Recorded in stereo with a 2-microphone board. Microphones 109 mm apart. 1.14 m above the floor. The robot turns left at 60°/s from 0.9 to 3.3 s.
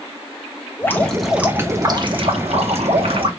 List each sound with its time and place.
0.8 s dripping: 20° left, 0.9 m; by 3.3 s 125° right, 0.9 m